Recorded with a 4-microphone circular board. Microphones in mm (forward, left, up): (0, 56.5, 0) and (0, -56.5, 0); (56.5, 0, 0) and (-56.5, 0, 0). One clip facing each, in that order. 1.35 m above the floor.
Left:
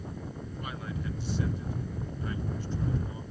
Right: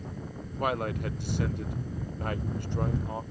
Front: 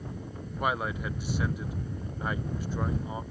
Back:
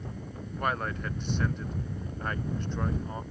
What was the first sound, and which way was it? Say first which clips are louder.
A man speaking: right 10 dB, front 1 dB; 80° right.